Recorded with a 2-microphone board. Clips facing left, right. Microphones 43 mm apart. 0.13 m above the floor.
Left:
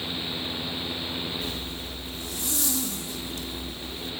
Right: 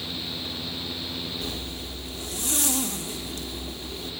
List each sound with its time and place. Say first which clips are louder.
1.4 s a zipper: even; 60° right (ahead or behind), 1.0 m